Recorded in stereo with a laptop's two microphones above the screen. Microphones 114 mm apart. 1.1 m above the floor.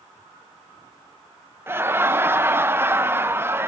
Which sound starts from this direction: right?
Laughter, at 1.7 s.